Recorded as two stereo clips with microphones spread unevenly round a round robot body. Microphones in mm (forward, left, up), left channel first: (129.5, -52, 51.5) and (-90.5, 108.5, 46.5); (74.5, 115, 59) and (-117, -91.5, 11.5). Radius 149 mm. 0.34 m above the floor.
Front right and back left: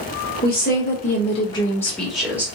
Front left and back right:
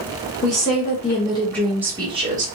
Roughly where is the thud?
I don't hear a thud.